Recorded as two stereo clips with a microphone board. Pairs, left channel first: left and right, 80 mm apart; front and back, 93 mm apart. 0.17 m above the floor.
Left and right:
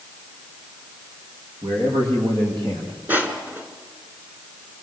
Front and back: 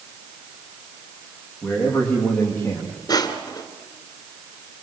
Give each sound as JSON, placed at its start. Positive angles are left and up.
{"t": 1.6, "sound": "a man speaking", "azimuth_deg": -80, "distance_m": 9.0}
{"t": 3.1, "sound": "crushing", "azimuth_deg": -25, "distance_m": 2.5}